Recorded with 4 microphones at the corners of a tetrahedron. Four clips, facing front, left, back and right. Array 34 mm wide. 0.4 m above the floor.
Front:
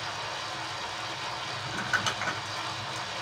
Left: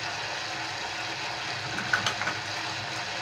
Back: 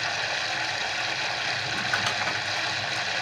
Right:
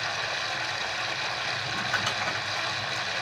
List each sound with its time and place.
0.0 s running water: 155° right, 0.8 m
1.6 s crumpling: 105° left, 1.7 m